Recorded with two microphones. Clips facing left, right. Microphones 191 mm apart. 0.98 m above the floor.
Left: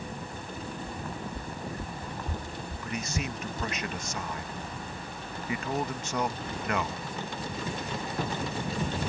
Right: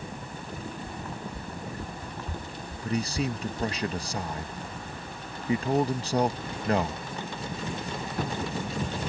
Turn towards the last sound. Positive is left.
turn(degrees=-35)  # may be behind; listen again after turning